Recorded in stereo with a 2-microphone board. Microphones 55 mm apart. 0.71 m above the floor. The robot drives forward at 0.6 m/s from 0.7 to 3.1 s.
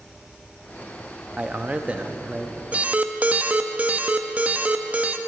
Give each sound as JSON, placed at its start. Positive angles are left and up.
{"t": 1.4, "sound": "a man speaking", "side_deg": -25, "distance_m": 0.6}
{"t": 2.7, "sound": "an alarm", "side_deg": -30, "distance_m": 0.6}